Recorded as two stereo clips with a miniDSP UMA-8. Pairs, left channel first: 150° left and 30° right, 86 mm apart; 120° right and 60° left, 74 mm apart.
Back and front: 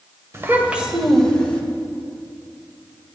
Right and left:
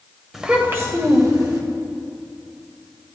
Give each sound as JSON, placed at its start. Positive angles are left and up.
{"t": 0.3, "sound": "a child speaking", "azimuth_deg": -20, "distance_m": 1.0}